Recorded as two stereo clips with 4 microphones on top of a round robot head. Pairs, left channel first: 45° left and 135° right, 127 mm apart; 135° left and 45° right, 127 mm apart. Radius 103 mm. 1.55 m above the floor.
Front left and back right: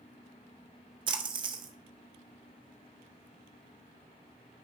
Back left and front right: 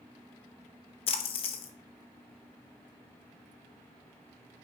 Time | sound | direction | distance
1.1 | a splash | 175° left | 0.6 m